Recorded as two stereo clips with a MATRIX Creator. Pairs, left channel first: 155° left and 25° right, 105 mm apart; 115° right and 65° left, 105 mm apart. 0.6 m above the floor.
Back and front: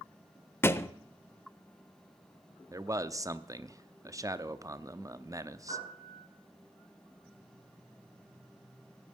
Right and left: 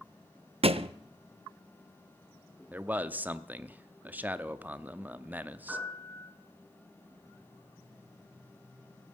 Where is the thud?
90° left, 0.5 m.